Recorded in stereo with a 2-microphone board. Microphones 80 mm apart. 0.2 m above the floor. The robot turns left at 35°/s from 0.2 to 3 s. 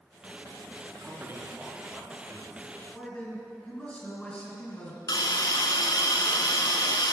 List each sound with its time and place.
0.9 s a man speaking: 40° right (ahead or behind), 2.5 m; by 2.6 s 15° left (ahead or behind), 2.5 m
2.9 s a man speaking: 15° left (ahead or behind), 3 m
5.1 s a hiss: 65° left (ahead or behind), 1.0 m